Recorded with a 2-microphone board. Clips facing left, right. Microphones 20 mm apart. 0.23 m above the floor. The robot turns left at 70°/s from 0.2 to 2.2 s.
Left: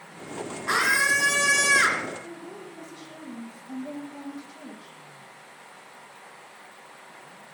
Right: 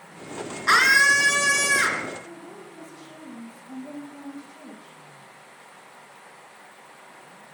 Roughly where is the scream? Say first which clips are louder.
Right 5 dB; behind right.